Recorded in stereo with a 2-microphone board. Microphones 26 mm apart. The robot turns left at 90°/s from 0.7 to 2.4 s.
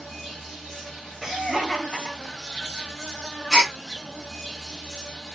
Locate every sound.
0.0 s an insect: 175° left, 1.4 m; by 5.4 s 20° left, 1.4 m
1.2 s laughter: 15° right (ahead or behind), 1.0 m; by 2.6 s 15° left (ahead or behind), 1.0 m
3.5 s a gasp: centre (ahead or behind), 1.1 m